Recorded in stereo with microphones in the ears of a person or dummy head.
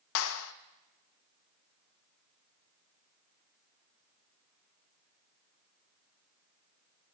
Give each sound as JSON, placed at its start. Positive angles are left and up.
{"t": 0.1, "sound": "a clap", "side_deg": 75, "distance_m": 0.8}